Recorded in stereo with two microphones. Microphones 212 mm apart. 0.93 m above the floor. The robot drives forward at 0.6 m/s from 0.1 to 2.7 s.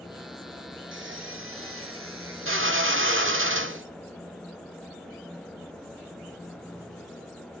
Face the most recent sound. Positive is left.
turn(degrees=-70)  # may be behind; listen again after turning